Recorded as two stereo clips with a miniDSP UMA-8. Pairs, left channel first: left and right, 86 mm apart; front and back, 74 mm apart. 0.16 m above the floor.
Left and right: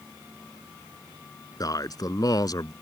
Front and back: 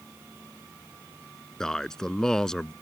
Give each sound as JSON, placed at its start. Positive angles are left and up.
{"t": 1.6, "sound": "a man speaking", "azimuth_deg": 80}